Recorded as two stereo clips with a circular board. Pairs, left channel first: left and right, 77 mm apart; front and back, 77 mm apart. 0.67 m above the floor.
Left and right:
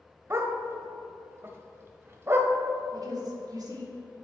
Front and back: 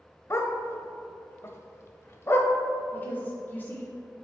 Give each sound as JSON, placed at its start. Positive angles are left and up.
{"t": 0.3, "sound": "a dog barking", "azimuth_deg": -45, "distance_m": 0.6}
{"t": 2.9, "sound": "a woman speaking", "azimuth_deg": -65, "distance_m": 1.4}